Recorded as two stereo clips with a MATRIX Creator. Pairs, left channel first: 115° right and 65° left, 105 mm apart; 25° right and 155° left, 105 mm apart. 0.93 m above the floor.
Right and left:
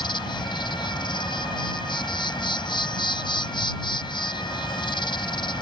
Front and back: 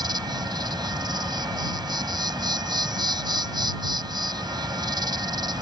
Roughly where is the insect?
Behind right.